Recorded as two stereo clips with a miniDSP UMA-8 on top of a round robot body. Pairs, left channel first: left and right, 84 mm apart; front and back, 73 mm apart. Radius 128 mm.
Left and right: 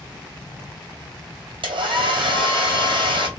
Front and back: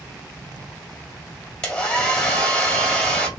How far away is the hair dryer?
About 2.0 m.